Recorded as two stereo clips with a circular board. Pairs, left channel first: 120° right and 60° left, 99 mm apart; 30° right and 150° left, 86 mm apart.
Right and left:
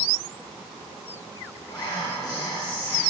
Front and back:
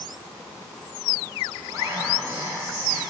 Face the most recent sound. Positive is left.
turn(degrees=-160)